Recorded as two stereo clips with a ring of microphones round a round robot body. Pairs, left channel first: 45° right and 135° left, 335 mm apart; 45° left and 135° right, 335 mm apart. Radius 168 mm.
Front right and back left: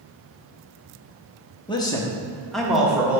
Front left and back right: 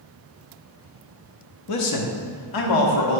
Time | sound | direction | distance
1.7 | a man speaking | 30° left | 0.8 m